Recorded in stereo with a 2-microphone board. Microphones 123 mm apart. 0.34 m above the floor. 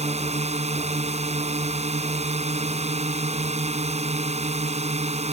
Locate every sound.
0.0 s a drone: 65° right (ahead or behind)